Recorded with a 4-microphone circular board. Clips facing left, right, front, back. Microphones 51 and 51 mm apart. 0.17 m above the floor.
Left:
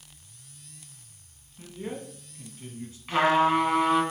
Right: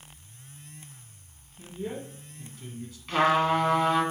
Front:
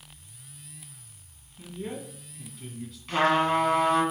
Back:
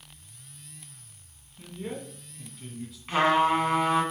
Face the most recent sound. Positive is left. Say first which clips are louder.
# left 1 dB, back 1 dB
turn(degrees=150)